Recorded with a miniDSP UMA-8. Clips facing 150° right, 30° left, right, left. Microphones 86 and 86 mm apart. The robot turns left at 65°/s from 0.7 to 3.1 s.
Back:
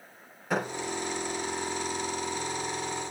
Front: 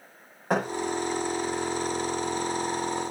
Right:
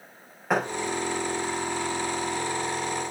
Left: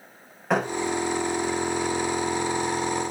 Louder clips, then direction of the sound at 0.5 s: Front 4 dB, left 1 dB; 5° right.